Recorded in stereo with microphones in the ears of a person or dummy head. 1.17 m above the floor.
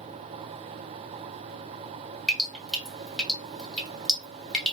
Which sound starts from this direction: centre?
Dripping, at 2.3 s.